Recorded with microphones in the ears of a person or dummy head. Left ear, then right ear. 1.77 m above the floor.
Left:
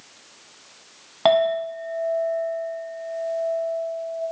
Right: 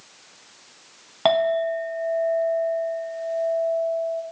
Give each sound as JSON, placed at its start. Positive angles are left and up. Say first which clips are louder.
{"t": 1.2, "sound": "a clink", "louder": "left 1 dB", "side_deg": -5, "distance_m": 0.9}